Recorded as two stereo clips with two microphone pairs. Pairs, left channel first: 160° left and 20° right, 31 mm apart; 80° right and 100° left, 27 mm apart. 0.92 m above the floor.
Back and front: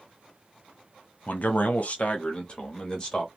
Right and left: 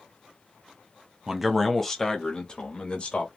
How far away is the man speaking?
About 0.9 m.